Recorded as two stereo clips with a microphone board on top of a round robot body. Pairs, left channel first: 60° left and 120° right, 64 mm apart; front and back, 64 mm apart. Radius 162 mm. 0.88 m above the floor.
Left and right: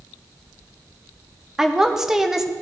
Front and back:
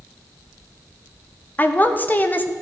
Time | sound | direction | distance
1.6 | a woman speaking | 45° right | 0.9 m